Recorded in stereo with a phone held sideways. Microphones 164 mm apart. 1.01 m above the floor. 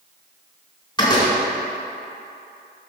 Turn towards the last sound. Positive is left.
turn(degrees=25)  # may be behind; listen again after turning